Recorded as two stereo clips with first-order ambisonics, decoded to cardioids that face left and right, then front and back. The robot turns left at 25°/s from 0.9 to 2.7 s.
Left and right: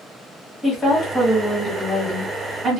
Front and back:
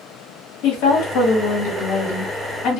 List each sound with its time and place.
0.6 s a woman speaking: 15° left, 1.1 m; by 2.8 s 30° right, 1.1 m